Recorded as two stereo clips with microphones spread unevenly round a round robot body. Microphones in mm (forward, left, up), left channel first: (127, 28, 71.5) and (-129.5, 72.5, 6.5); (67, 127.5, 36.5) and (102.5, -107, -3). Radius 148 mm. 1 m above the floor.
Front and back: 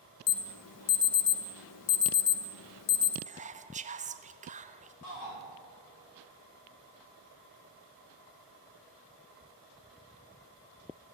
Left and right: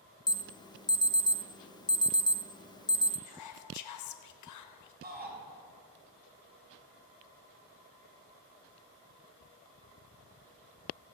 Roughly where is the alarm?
Ahead.